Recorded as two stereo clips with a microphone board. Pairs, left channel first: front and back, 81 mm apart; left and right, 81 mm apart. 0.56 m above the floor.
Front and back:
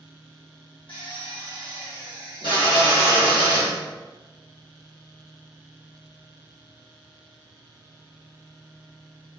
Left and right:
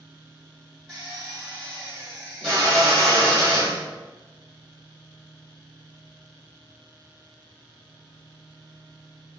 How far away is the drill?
About 1.5 m.